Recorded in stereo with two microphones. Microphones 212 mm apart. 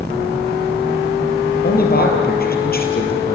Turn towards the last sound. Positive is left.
turn(degrees=45)  # may be behind; listen again after turning